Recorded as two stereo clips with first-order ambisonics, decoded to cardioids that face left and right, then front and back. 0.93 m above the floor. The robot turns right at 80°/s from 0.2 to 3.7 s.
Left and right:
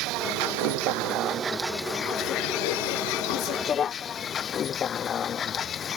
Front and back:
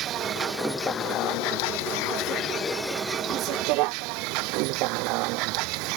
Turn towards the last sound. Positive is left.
turn(degrees=155)